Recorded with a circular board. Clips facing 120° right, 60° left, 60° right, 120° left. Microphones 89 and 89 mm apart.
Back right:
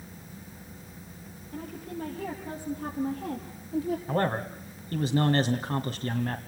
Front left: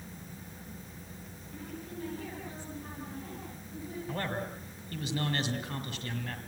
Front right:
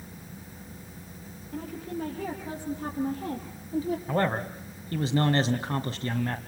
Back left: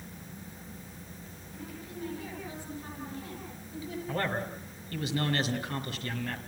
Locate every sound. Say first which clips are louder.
1.5 s a woman speaking: back right 5 dB, front right 9 dB; 70° right, 6 m; by 4.0 s 90° right, 4 m
4.1 s a man speaking: back right 5 dB, front right 3 dB; 95° right, 1.6 m